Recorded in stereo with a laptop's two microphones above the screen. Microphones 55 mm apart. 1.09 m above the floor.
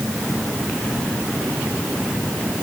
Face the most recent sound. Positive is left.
No sound to turn to.